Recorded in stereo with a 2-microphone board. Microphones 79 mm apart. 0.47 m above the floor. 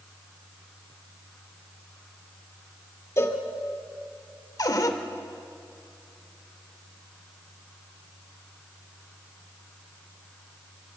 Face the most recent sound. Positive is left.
turn(degrees=50)  # may be behind; listen again after turning